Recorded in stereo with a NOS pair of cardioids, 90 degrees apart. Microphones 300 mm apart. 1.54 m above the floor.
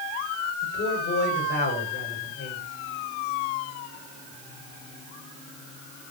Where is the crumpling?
I don't hear crumpling.